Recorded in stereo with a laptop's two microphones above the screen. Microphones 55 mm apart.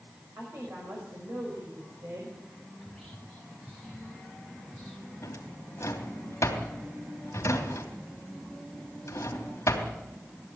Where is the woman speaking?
50° right (ahead or behind), 5.5 m.